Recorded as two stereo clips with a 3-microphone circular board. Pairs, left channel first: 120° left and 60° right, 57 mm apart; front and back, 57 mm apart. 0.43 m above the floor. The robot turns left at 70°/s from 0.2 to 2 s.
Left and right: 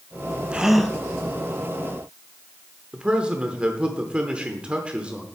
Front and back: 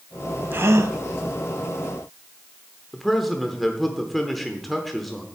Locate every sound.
0.5 s a gasp: 130° right, 0.7 m; by 1.0 s 160° right, 0.7 m
2.9 s a man speaking: 85° right, 1.0 m